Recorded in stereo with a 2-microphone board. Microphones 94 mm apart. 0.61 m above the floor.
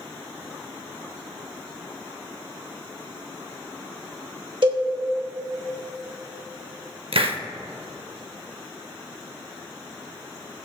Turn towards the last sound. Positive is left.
turn(degrees=-75)  # may be behind; listen again after turning